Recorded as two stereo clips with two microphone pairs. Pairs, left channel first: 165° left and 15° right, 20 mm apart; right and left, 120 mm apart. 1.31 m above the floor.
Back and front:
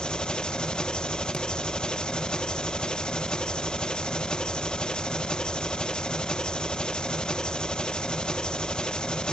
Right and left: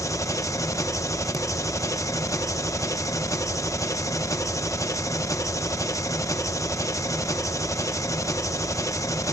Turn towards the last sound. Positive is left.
turn(degrees=-155)